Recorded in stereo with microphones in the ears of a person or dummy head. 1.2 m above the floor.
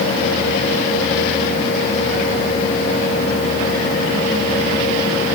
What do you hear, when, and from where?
Only background noise.